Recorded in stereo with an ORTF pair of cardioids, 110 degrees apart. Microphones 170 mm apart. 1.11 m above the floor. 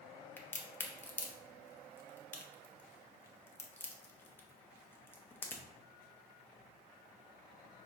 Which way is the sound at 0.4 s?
10° left.